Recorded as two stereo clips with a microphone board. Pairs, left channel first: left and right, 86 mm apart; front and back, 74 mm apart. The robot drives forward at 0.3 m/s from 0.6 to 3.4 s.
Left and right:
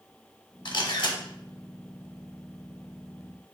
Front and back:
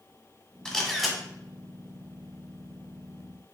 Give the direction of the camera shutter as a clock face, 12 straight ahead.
9 o'clock.